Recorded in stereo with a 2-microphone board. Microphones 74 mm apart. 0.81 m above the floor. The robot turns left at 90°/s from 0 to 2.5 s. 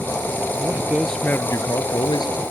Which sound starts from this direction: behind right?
A man speaking, at 0.5 s.